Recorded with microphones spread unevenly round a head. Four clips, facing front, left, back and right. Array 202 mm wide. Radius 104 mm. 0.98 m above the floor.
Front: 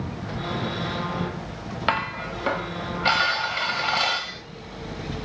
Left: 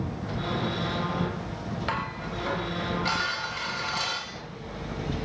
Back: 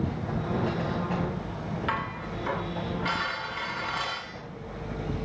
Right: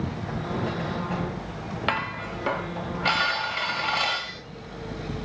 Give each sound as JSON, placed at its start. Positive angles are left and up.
{"t": 1.9, "sound": "dishes clattering", "azimuth_deg": -25, "distance_m": 4.0}